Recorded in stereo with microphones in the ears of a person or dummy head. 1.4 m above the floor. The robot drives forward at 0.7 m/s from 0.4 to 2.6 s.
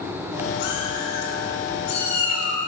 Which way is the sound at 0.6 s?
60° left (ahead or behind).